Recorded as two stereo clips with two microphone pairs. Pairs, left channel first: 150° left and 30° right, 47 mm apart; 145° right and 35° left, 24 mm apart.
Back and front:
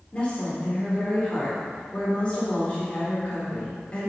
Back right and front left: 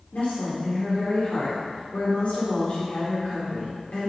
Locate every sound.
0.1 s a woman speaking: 150° right, 3.5 m